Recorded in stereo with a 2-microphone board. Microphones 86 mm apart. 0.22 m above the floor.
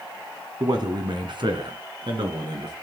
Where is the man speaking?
50° right (ahead or behind), 2 m; by 2.7 s 60° right (ahead or behind), 3 m.